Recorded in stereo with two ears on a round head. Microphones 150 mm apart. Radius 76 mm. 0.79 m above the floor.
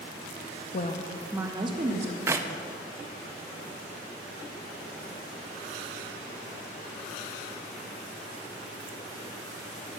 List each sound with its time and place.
0.7 s a woman speaking: 45° left (ahead or behind), 0.6 m; by 2.2 s 40° right (ahead or behind), 1.2 m
2.3 s a clap: 15° right (ahead or behind), 0.6 m